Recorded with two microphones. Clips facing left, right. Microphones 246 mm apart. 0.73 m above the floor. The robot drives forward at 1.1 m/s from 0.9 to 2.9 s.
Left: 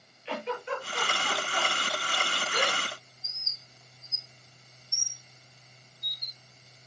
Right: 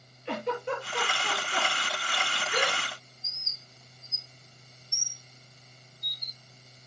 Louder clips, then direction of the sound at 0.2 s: Right 3 dB; 50° right (ahead or behind).